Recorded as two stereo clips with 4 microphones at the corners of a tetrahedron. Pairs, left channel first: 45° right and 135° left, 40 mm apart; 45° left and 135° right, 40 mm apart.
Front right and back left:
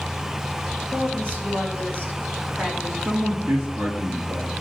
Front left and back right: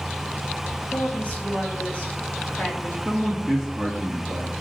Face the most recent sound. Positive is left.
turn(degrees=135)